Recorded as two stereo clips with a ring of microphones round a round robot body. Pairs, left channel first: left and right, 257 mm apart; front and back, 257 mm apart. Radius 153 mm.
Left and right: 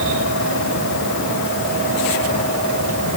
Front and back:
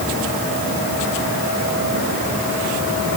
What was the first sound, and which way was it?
Only background noise.